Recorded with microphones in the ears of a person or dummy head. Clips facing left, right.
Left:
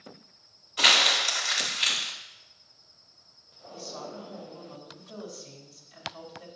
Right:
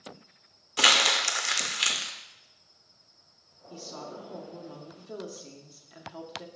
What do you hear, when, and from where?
0.8 s crumpling: 55° right (ahead or behind), 0.8 m
3.7 s a woman speaking: 60° right (ahead or behind), 1.1 m